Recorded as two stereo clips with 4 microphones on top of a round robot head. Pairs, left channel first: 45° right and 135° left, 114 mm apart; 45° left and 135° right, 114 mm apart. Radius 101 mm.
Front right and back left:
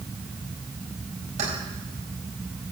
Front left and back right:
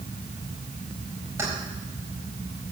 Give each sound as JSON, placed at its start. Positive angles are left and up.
{"t": 1.4, "sound": "keys jangling", "azimuth_deg": 155, "distance_m": 5.0}